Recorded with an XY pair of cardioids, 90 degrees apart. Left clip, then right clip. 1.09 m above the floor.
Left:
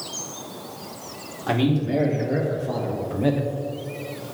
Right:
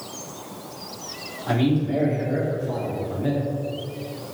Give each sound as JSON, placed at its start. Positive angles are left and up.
{"t": 1.5, "sound": "a man speaking", "azimuth_deg": 45, "distance_m": 2.0}